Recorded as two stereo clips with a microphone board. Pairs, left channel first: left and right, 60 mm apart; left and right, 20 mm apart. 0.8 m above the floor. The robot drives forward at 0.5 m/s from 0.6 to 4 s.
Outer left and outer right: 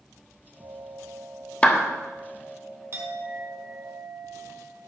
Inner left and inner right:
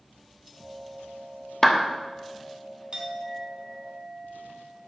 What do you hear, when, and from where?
1.6 s a clap: 20° left (ahead or behind), 0.9 m
2.9 s a clink: 45° right (ahead or behind), 1.7 m; by 4.9 s 60° right (ahead or behind), 1.4 m